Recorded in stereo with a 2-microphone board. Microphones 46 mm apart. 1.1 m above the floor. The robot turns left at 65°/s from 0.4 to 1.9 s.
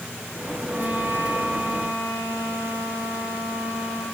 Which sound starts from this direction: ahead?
A violin, at 0.7 s.